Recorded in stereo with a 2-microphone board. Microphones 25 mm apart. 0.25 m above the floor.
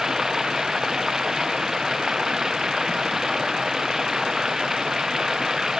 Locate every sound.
0.0 s running water: 15° right (ahead or behind)